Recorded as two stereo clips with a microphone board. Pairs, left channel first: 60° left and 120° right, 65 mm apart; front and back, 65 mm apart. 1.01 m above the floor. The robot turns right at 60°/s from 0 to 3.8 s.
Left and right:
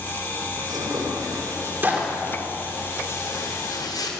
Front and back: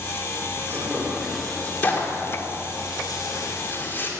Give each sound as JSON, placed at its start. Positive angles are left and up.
{"t": 0.6, "sound": "tearing paper", "azimuth_deg": -135, "distance_m": 2.5}